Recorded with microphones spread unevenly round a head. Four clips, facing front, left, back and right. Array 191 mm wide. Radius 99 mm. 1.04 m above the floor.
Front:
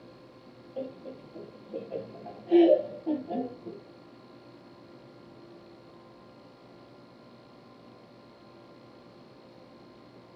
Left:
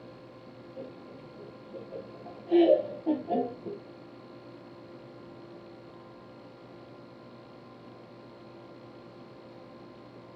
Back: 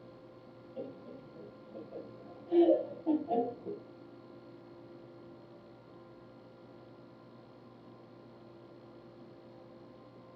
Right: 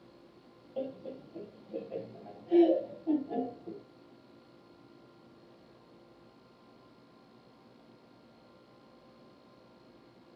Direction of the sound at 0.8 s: 35° right.